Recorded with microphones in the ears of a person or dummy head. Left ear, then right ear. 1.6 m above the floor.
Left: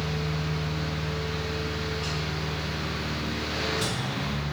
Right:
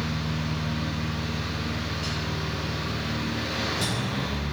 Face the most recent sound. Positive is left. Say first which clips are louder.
# even
turn(degrees=10)  # may be behind; listen again after turning